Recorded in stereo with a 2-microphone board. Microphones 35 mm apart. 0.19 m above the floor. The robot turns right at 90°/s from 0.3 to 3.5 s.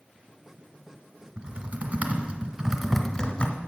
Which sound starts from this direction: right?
Typing on a keyboard, at 1.4 s.